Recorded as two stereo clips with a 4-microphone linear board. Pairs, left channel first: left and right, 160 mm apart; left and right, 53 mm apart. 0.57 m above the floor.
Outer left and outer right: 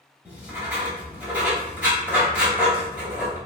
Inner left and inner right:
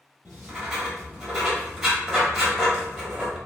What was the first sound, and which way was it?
Writing, 10° right (ahead or behind).